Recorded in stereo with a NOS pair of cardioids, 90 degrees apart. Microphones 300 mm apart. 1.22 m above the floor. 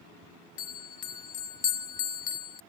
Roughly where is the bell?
Ahead left.